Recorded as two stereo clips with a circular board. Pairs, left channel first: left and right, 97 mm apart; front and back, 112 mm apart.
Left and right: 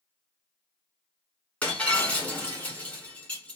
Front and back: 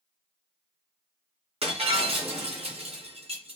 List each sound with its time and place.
1.6 s breaking glass: 165° left, 1.6 m